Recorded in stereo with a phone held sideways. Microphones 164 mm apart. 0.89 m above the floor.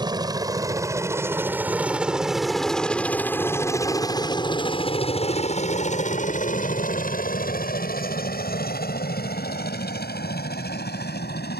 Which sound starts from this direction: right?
A helicopter, at 0.0 s.